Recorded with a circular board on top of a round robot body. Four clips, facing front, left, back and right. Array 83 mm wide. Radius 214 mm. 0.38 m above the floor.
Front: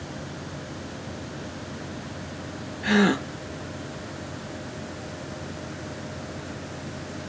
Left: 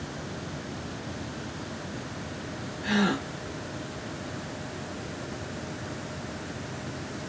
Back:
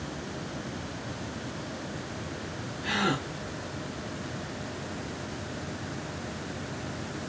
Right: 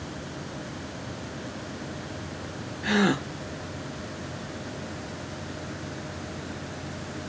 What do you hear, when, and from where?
2.8 s a gasp: 30° right, 1.0 m